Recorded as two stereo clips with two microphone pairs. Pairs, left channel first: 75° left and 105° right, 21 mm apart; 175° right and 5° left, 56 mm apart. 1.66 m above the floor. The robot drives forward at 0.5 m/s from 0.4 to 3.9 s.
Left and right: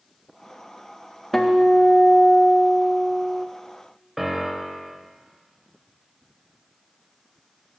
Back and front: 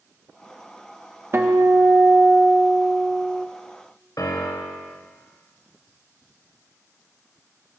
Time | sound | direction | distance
1.3 | a guitar | straight ahead | 1.0 m
4.2 | a piano | straight behind | 1.1 m